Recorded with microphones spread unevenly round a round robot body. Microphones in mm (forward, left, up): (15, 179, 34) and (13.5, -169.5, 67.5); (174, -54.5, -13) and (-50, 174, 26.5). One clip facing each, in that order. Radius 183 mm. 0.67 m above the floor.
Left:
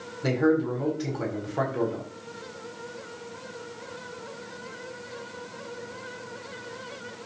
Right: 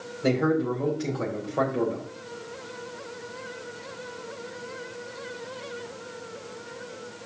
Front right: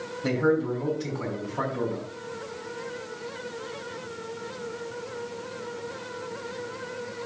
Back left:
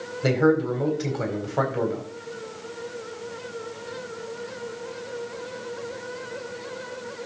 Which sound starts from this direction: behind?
A man speaking, at 0.2 s.